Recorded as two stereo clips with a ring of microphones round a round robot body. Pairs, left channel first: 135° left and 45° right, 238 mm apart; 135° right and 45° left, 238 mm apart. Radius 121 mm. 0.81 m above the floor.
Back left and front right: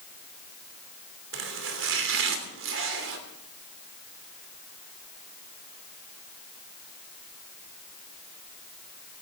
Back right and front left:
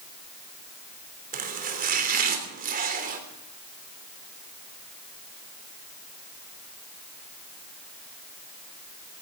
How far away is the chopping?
About 3 m.